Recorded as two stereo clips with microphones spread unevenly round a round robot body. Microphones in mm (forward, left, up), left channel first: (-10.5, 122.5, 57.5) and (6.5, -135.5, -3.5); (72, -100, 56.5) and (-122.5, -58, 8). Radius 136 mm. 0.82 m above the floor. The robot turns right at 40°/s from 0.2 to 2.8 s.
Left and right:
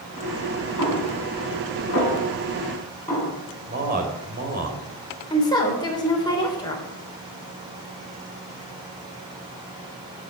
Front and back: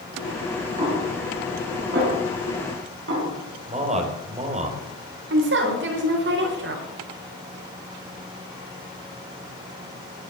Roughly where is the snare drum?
Left.